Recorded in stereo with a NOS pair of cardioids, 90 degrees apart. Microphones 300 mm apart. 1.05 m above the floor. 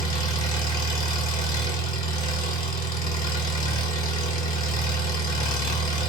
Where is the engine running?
30° left, 1.5 m.